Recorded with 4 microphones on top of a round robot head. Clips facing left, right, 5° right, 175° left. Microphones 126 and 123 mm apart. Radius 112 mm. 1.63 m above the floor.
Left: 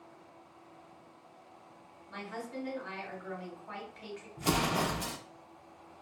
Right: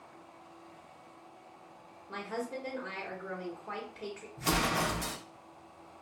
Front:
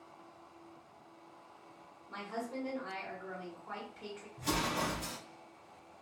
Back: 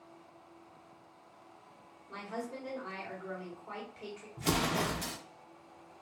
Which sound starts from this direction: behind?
An explosion, at 4.4 s.